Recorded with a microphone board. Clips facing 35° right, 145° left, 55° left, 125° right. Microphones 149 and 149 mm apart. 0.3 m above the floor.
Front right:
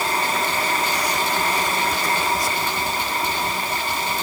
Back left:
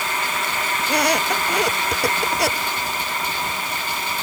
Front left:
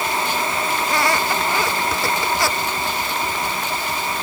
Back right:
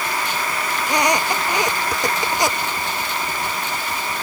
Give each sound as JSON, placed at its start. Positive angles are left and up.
{"t": 0.8, "sound": "a squeak", "azimuth_deg": 165}